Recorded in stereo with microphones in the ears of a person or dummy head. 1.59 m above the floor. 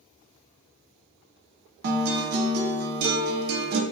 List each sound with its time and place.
1.8 s a guitar: 55° right (ahead or behind), 0.6 m